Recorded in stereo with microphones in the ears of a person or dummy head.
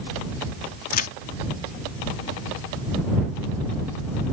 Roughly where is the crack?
Left.